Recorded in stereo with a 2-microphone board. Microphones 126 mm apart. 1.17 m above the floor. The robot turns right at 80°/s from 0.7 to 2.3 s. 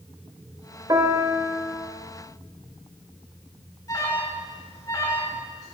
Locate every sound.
0.9 s a piano: 35° right, 1.6 m; by 1.7 s 35° left, 1.6 m
3.9 s an alarm: 30° left (ahead or behind), 2.5 m